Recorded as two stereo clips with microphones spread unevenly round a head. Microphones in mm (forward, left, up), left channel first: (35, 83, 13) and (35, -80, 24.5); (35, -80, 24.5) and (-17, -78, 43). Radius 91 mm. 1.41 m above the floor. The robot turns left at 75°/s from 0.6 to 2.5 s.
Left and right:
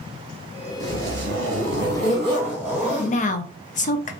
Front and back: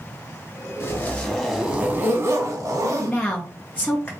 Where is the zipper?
40° right, 1.2 m; by 3.2 s 170° right, 1.2 m.